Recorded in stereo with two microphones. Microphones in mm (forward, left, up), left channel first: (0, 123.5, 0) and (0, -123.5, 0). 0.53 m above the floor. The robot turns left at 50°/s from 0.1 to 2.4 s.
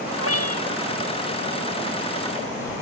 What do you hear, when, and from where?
0.2 s a cat meowing: 65° left (ahead or behind); by 0.8 s 85° left